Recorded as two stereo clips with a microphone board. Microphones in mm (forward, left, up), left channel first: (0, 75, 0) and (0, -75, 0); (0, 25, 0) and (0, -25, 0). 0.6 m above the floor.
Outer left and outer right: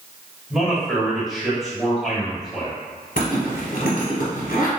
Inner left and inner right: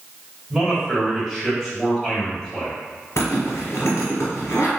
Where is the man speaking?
Centre (ahead or behind), 1.6 m.